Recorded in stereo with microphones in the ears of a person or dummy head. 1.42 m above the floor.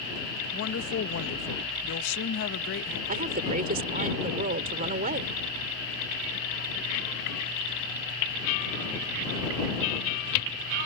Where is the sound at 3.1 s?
40° right (ahead or behind).